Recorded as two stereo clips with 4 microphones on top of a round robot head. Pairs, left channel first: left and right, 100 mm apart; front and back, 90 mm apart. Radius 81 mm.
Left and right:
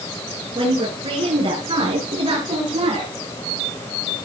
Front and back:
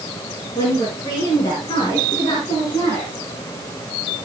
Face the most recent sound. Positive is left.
turn(degrees=-65)